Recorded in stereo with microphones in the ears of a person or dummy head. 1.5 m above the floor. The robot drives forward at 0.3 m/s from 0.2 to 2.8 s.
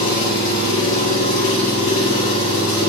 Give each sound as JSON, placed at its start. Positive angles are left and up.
{"t": 0.0, "sound": "an engine running", "side_deg": 40, "distance_m": 2.0}